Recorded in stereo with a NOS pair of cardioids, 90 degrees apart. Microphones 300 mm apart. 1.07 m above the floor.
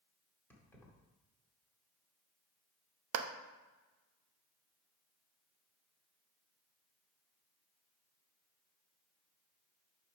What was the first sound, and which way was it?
Keys jangling, 5° left.